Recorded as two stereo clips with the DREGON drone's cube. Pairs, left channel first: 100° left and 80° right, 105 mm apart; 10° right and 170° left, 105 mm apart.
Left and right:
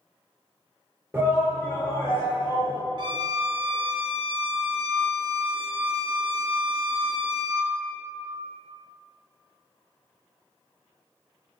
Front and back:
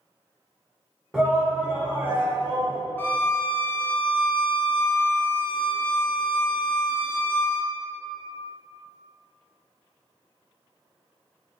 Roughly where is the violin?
Right.